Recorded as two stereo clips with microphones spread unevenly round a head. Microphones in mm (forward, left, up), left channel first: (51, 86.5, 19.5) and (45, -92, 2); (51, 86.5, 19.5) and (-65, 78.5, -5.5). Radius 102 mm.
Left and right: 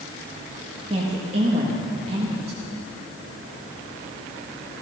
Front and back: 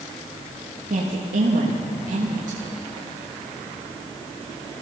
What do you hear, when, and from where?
0.9 s a woman speaking: 155° right, 1.5 m